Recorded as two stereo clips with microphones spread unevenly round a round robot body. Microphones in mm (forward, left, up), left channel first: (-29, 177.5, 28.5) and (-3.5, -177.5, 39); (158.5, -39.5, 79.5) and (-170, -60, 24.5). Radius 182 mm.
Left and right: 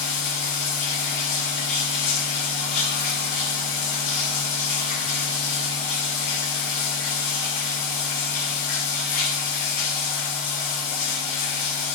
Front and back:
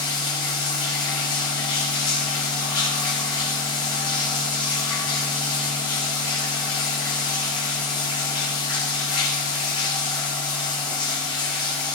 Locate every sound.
0.0 s running water: 85° left, 7 m